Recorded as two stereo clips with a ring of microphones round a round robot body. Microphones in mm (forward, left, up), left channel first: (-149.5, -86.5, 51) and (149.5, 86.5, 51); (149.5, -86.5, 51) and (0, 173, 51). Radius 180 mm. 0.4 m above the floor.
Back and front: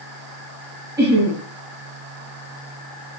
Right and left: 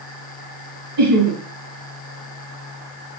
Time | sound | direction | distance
1.0 | laughter | 110° left | 4 m